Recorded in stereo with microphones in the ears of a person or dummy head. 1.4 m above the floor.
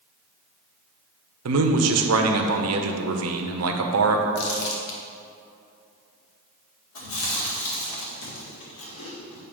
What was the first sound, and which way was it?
A man speaking, 80° right.